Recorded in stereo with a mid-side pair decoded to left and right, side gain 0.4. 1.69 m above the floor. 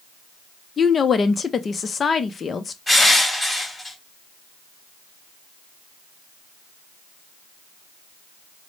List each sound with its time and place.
0.8 s a woman speaking: 45° left, 0.5 m
2.9 s crushing: 15° left, 2.5 m